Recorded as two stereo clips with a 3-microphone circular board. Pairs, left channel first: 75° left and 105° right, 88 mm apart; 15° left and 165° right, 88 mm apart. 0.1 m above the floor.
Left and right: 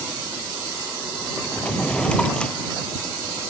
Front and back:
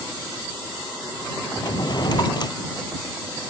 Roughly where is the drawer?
Ahead.